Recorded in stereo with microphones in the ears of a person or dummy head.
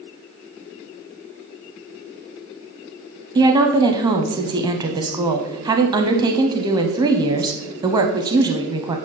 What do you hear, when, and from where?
3.4 s a woman speaking: 25° right (ahead or behind), 0.6 m